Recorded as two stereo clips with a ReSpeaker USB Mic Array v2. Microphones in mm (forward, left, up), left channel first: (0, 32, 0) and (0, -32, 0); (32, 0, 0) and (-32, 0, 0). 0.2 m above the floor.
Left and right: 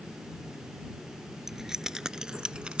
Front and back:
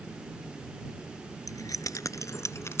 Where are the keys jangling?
5° right; by 2.8 s 25° right.